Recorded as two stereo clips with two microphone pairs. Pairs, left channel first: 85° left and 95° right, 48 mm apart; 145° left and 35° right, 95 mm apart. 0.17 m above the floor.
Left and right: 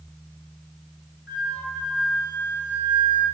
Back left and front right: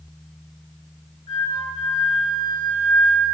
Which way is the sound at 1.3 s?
40° left.